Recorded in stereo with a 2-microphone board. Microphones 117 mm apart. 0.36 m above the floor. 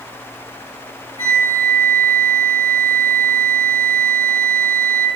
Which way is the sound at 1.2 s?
25° right (ahead or behind).